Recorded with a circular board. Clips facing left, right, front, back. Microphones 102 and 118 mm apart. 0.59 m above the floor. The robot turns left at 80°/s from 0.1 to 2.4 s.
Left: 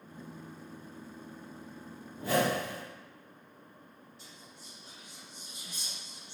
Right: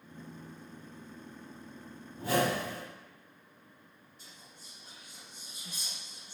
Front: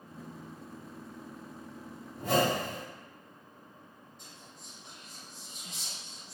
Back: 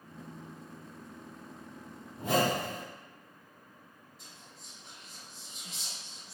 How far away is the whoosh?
About 1.7 m.